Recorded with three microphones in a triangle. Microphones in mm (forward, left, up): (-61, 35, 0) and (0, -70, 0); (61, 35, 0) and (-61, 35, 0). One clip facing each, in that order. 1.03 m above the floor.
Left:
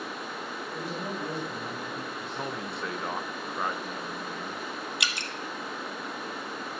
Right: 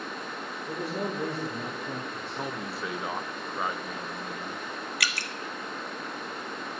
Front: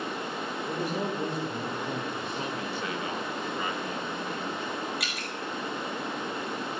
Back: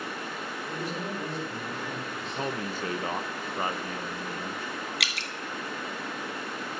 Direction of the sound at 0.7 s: 50° right.